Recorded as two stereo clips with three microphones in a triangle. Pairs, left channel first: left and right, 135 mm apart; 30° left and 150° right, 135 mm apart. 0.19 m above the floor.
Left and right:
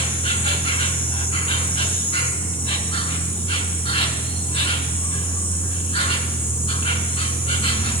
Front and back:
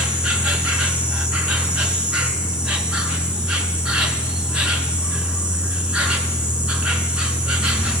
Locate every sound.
0.0 s an insect: 130° left, 0.7 m